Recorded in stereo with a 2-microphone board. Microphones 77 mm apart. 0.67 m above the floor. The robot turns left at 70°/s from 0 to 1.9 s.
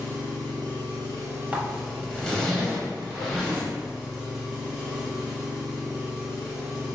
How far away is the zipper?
About 0.8 m.